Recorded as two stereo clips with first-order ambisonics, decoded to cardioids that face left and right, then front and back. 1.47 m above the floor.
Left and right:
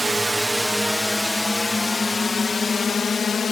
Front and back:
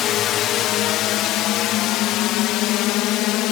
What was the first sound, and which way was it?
A drone, 10° right.